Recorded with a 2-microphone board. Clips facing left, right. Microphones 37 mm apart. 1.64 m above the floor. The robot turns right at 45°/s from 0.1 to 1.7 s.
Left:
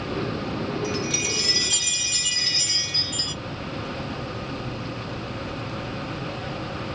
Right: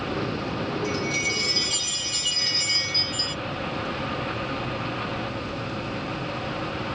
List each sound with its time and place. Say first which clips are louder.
0.8 s a chime: right 1 dB; 50° left, 1.2 m; by 3.4 s 90° left, 1.2 m